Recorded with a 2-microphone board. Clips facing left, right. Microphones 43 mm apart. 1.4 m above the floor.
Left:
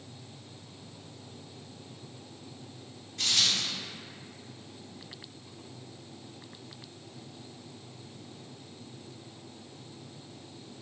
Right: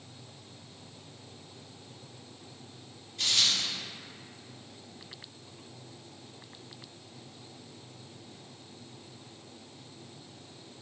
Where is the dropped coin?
65° left (ahead or behind), 1.5 m.